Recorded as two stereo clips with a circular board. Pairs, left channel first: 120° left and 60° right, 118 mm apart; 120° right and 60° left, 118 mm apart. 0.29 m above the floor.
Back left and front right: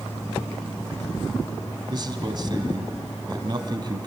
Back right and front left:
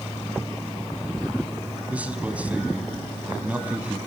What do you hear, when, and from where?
1.9 s a man speaking: 15° right, 1.8 m